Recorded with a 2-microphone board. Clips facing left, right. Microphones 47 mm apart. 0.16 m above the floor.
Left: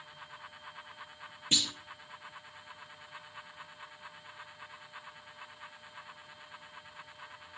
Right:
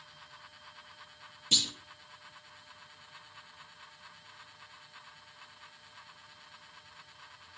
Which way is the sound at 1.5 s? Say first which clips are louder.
Even; 30° left (ahead or behind).